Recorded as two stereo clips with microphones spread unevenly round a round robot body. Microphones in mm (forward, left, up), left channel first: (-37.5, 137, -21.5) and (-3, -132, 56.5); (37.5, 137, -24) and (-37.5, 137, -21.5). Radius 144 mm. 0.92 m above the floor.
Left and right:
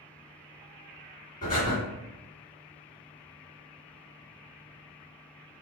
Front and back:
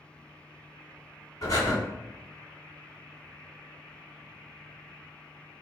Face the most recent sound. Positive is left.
turn(degrees=30)